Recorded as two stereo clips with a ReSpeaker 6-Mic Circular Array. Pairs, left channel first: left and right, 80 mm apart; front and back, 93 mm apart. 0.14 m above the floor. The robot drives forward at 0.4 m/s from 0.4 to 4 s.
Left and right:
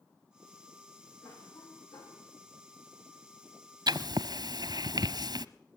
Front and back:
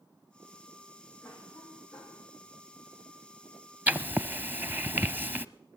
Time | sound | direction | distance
1.2 | a cough | 80° left | 8.5 m
3.9 | writing | 110° right | 0.9 m